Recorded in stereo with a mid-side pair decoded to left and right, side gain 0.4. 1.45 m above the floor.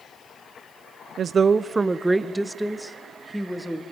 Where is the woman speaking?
65° right, 0.7 m; by 3.8 s 5° right, 2.5 m.